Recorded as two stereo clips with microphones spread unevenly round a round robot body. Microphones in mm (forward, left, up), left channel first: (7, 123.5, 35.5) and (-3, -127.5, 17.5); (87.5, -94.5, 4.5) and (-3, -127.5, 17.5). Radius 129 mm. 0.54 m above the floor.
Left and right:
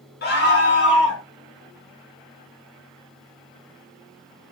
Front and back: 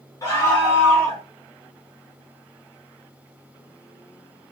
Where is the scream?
50° left, 1.0 m; by 1.2 s 120° left, 1.0 m.